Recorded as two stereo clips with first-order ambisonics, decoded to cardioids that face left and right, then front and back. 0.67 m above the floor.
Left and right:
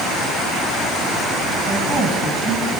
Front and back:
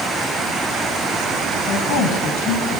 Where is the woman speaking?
25° right, 4.5 m.